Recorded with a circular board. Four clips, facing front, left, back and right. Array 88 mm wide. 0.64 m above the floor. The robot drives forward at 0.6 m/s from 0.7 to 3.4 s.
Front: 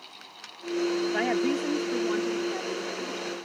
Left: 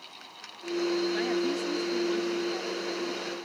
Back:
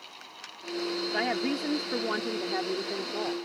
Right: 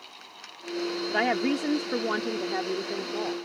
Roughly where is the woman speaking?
Right.